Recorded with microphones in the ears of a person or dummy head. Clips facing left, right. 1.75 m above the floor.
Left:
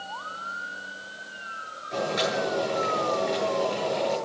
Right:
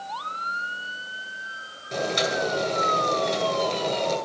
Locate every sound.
1.9 s boiling: 50° right (ahead or behind), 9 m